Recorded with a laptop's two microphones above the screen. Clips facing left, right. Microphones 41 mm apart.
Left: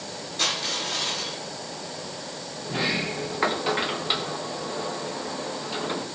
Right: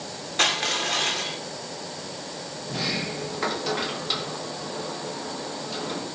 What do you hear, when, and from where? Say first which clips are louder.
0.4 s crushing: right 4 dB; 55° right (ahead or behind), 1.8 m
2.6 s a sliding door: left 3 dB; 25° left (ahead or behind), 0.8 m